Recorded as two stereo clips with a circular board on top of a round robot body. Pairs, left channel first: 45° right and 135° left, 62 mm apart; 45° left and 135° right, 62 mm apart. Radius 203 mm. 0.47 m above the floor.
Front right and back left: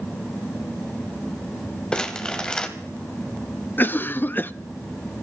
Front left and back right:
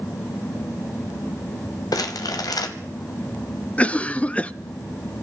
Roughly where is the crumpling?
Ahead left.